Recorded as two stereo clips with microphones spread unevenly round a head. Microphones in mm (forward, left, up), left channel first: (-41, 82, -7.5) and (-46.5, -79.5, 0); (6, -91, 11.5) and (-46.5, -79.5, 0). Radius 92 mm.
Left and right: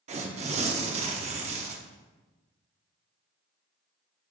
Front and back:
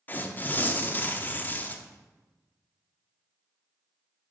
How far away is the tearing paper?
About 0.6 m.